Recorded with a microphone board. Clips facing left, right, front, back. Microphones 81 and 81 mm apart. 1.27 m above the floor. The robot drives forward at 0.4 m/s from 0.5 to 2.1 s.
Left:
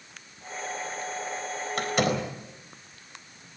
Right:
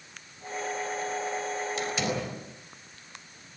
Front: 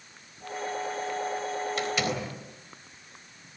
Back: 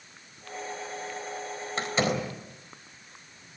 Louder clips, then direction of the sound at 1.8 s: Left 9 dB, back 7 dB; 120° left.